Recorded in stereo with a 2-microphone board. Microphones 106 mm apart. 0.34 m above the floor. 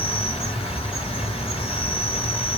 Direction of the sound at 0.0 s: 65° left (ahead or behind).